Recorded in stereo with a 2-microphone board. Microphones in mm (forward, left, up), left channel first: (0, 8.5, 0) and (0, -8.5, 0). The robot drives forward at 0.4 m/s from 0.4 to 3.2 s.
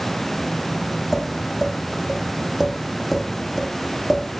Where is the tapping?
Centre (ahead or behind), 7.5 m.